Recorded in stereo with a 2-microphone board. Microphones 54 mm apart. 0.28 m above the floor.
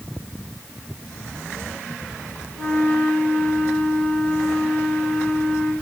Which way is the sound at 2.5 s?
30° left (ahead or behind).